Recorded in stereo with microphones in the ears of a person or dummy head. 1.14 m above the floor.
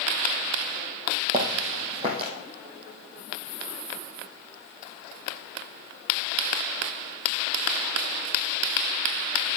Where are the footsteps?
35° right (ahead or behind), 2.5 m.